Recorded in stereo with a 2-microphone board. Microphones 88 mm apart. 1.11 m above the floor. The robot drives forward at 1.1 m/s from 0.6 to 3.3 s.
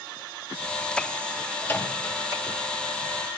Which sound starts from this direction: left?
A microwave, at 1.6 s.